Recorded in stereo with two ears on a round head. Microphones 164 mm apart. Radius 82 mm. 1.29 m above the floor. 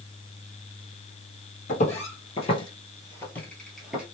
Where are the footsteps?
40° left (ahead or behind), 1.7 m; by 4.0 s 5° right (ahead or behind), 1.3 m.